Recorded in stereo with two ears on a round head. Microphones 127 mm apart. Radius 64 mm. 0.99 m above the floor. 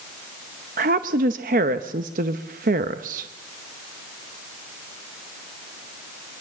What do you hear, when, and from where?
0.8 s a woman speaking: 65° right (ahead or behind), 0.9 m